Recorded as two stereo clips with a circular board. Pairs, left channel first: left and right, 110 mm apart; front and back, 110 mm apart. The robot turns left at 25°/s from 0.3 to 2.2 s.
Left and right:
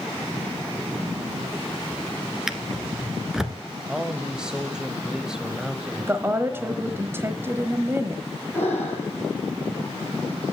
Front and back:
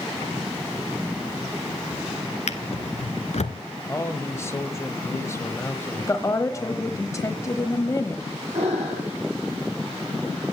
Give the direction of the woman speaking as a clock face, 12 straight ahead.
1 o'clock.